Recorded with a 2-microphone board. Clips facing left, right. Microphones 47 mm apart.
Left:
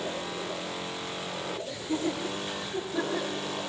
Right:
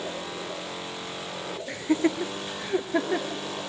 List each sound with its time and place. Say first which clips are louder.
1.7 s laughter: right 8 dB; 60° right (ahead or behind), 2.5 m; by 3.4 s 65° right (ahead or behind), 3 m